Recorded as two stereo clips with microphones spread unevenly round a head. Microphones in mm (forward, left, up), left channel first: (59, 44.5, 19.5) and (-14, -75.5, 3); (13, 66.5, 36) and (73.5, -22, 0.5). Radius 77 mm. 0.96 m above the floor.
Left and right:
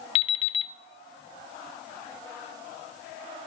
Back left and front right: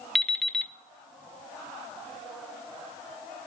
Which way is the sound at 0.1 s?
60° left.